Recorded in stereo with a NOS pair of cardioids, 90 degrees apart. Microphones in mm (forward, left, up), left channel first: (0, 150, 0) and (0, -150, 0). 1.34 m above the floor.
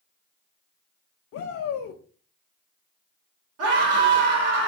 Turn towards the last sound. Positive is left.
turn(degrees=-55)